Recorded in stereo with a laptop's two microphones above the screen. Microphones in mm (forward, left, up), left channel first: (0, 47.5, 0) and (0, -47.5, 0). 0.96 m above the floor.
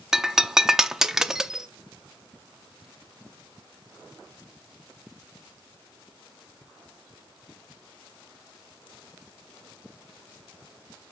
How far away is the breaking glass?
About 0.6 m.